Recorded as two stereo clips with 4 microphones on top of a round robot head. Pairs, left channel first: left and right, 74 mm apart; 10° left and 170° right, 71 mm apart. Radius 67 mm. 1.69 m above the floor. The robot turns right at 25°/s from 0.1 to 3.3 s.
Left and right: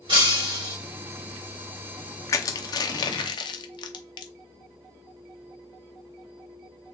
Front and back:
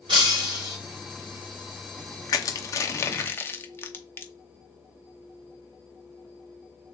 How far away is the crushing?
About 0.7 m.